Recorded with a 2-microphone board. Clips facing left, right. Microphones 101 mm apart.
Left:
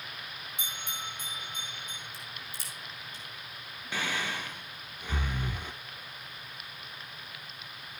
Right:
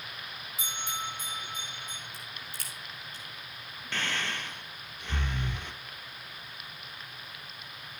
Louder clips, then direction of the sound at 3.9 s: Left 1 dB; 10° left (ahead or behind).